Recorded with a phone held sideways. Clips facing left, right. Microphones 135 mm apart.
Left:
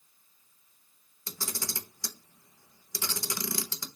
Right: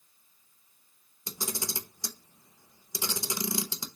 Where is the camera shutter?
20° right (ahead or behind), 0.6 m.